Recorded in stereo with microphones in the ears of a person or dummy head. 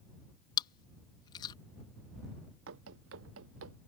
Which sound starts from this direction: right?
Running footsteps, at 2.7 s.